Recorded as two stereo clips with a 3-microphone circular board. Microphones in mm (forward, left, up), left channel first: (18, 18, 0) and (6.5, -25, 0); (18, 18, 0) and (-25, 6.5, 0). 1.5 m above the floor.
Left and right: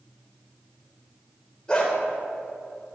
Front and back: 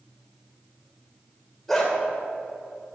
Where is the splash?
No splash in this recording.